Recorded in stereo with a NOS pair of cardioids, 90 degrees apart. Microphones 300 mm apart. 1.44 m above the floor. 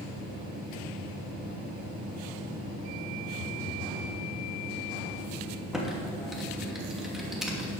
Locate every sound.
3.4 s a phone buzzing: 60° left, 3 m
5.7 s typing on a keyboard: straight ahead, 2.5 m